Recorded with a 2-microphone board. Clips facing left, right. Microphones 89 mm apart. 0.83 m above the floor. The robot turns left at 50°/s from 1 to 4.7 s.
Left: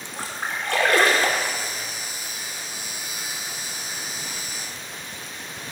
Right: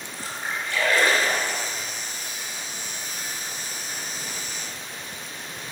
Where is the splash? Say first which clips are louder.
Left 2 dB; 75° left (ahead or behind), 2.5 m; by 1.9 s 50° left (ahead or behind), 2.5 m.